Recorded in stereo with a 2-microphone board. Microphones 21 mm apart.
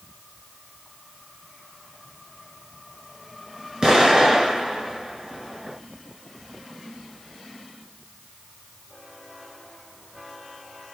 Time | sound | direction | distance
3.8 | an explosion | 40° right (ahead or behind) | 1.4 m